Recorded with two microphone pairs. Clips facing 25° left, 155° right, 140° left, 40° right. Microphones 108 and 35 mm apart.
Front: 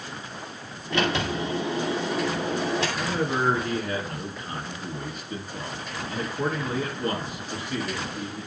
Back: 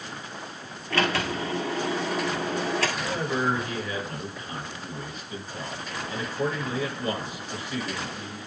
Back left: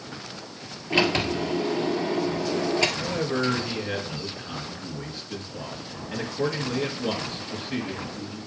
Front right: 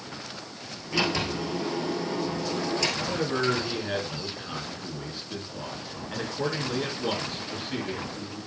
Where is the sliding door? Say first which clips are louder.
Front 1 dB, back left 4 dB; 95° left, 1.7 m.